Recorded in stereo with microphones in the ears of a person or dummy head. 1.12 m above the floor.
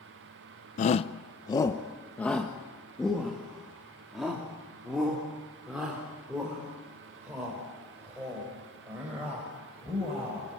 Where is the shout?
35° left (ahead or behind), 0.6 m; by 10.5 s 5° right (ahead or behind), 7 m.